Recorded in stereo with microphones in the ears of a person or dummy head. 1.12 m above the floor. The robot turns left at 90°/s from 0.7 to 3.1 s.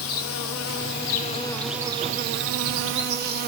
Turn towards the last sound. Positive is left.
turn(degrees=-125)